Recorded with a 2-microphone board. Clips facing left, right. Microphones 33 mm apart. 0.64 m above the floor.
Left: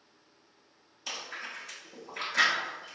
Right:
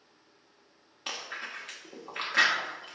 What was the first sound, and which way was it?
Chewing, 55° right (ahead or behind).